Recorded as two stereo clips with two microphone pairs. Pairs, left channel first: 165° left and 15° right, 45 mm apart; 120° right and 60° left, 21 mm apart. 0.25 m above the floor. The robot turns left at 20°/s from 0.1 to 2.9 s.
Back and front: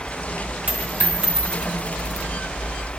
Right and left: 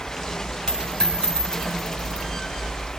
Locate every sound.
0.7 s a dropped coin: 70° right, 7.5 m; by 2.3 s 100° right, 7.5 m